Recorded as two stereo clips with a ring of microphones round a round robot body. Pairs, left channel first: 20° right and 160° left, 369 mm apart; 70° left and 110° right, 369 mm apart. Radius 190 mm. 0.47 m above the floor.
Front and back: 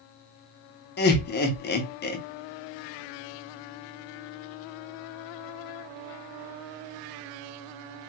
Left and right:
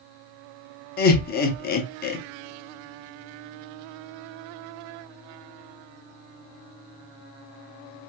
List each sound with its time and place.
1.0 s laughter: 20° left, 0.8 m